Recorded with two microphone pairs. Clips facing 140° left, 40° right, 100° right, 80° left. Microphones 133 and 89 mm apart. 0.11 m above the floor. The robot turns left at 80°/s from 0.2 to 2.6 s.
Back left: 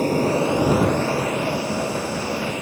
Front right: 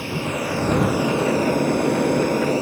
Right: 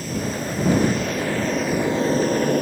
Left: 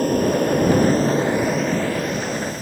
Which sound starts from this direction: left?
An aircraft, at 0.0 s.